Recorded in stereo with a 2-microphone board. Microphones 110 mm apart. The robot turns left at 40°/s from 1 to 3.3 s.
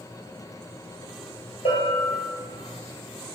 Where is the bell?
60° left (ahead or behind), 2.5 m; by 2.2 s 40° left (ahead or behind), 2.5 m.